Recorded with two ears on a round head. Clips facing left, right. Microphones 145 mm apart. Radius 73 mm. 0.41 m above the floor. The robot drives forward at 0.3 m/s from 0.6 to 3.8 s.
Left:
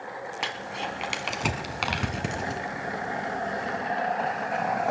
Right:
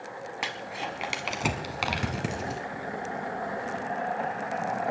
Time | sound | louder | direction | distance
0.4 | crumpling | left 1 dB | 5° right (ahead or behind) | 1.2 m